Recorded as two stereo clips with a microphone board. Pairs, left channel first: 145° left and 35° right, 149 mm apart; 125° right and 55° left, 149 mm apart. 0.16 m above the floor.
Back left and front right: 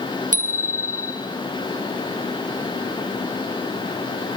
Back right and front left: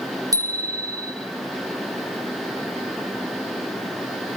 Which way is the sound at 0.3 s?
10° right.